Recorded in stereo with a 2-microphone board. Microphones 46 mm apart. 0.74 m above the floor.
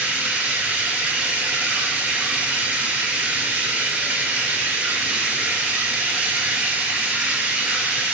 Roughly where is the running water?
Right.